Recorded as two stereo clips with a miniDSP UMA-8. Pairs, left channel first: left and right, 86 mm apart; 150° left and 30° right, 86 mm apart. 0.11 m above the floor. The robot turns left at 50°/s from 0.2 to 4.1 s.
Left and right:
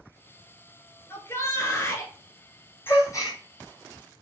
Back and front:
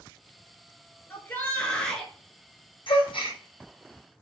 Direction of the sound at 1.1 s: 115° left.